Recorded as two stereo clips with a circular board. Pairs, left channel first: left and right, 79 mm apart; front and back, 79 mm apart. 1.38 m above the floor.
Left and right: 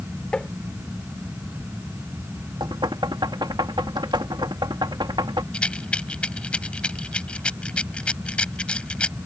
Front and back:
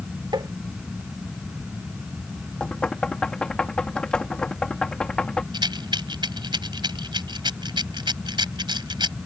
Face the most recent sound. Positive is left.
turn(degrees=165)